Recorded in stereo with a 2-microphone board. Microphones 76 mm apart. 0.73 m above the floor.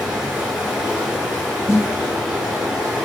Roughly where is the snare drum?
Left.